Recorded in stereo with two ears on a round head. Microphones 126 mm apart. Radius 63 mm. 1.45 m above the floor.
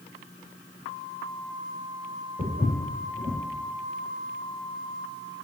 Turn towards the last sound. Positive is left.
turn(degrees=35)  # may be behind; listen again after turning